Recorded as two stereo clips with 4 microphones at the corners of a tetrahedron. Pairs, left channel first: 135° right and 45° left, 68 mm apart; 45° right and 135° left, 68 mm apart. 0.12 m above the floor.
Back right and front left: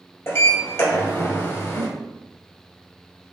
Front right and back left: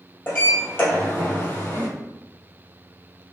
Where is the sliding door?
95° right, 1.9 m.